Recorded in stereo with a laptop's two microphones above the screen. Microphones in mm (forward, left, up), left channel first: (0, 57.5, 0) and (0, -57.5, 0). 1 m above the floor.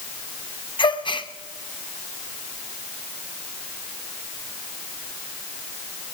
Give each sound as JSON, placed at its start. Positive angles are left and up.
{"t": 0.8, "sound": "a gasp", "side_deg": 45, "distance_m": 0.6}